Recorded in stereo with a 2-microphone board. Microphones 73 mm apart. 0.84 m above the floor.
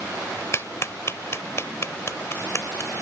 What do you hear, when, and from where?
0.5 s a clap: 40° left (ahead or behind)